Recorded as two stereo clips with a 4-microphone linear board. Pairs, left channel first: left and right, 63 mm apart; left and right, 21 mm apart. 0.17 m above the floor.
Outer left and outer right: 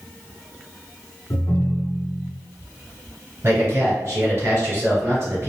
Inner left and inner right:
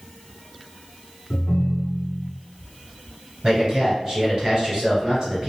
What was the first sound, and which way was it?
A ringtone, 55° left (ahead or behind).